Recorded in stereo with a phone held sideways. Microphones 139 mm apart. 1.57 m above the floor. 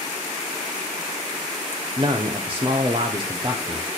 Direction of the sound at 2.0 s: 40° right (ahead or behind).